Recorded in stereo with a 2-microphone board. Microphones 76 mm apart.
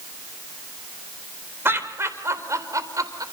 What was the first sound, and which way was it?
Laughter, 30° right (ahead or behind).